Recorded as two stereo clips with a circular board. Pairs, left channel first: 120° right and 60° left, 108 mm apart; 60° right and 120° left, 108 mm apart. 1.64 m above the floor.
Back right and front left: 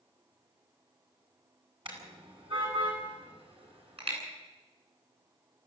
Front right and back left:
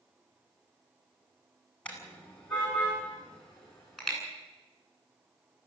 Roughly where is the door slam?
No door slam in this recording.